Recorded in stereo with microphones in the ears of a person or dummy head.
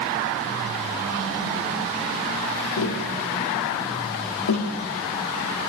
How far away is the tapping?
About 1.2 m.